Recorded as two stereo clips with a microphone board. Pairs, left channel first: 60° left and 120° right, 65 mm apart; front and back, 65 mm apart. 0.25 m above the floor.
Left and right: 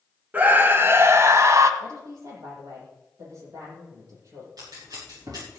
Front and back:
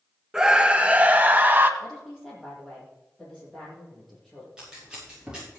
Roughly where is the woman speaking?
Right.